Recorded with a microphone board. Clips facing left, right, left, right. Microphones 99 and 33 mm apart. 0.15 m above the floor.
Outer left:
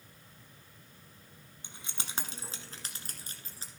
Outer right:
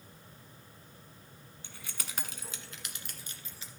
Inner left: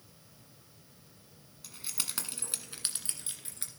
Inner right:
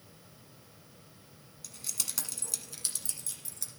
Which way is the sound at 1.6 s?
20° left (ahead or behind).